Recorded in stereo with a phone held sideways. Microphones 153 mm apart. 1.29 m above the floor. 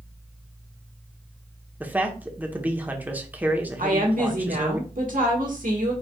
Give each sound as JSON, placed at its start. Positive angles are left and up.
{"t": 0.0, "sound": "a fan", "side_deg": -5, "distance_m": 1.8}
{"t": 1.8, "sound": "a man speaking", "side_deg": -10, "distance_m": 1.0}
{"t": 3.8, "sound": "a woman speaking", "side_deg": -70, "distance_m": 1.7}